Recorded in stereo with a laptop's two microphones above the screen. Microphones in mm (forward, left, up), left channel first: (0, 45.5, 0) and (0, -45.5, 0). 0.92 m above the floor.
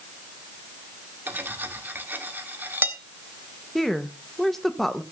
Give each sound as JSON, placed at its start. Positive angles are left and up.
{"t": 1.3, "sound": "cutlery clinking", "side_deg": -20, "distance_m": 1.2}
{"t": 3.8, "sound": "a woman speaking", "side_deg": 0, "distance_m": 0.9}